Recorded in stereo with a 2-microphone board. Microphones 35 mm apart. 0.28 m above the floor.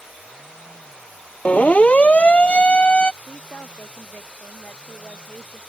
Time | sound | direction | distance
1.4 | a siren | 40° left (ahead or behind) | ?
3.2 | a woman speaking | 55° left (ahead or behind) | ?